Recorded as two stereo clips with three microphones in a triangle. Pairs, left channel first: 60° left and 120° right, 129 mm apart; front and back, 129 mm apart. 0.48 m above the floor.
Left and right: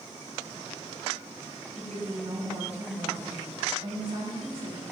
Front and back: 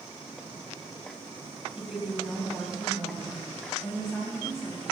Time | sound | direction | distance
1.8 | a woman speaking | 95° right | 2.5 m